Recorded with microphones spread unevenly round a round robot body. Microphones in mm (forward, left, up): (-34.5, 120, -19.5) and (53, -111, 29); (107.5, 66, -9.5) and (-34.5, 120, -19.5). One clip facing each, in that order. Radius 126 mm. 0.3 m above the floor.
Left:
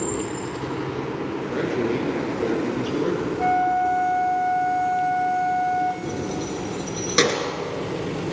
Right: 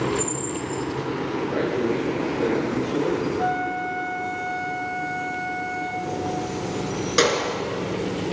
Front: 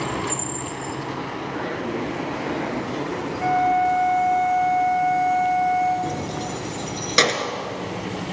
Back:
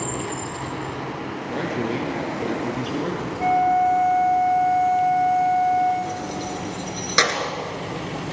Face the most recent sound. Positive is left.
turn(degrees=45)